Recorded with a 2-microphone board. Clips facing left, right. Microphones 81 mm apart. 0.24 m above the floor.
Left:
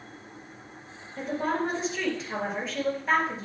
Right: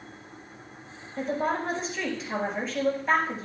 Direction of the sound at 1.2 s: Centre (ahead or behind).